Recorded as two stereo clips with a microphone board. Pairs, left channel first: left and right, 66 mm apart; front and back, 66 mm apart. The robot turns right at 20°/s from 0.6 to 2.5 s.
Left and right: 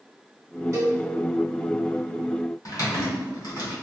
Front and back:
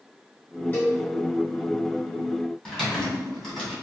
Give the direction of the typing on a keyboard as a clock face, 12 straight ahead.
9 o'clock.